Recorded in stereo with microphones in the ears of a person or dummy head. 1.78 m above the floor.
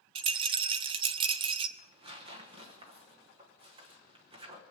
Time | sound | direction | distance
0.1 | a rattle | 35° right (ahead or behind) | 0.6 m
1.8 | tearing paper | 25° right (ahead or behind) | 1.2 m